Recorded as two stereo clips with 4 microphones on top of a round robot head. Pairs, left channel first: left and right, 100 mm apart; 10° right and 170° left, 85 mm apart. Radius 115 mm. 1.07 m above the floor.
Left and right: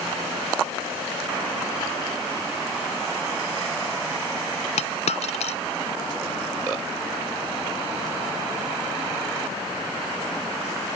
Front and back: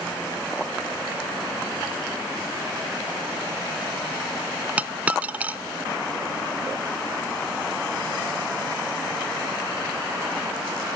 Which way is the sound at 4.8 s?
100° left.